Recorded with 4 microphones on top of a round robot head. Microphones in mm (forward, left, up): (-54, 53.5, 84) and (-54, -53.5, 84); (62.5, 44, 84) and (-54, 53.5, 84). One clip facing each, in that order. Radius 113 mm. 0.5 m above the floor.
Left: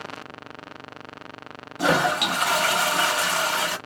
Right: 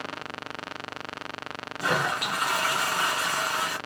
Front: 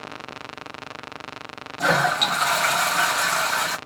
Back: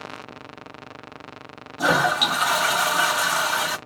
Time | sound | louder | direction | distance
1.8 | a toilet flushing | left 6 dB, back 1 dB | 90° left | 1.0 m